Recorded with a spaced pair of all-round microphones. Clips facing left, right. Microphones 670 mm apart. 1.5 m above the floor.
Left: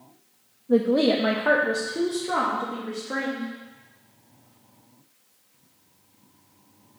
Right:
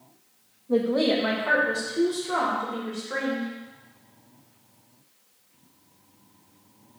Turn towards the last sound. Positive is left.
turn(degrees=85)